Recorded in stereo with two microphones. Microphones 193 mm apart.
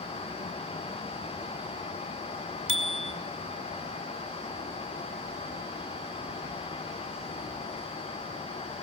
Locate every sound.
2.7 s a bicycle bell: 90° right, 2.5 m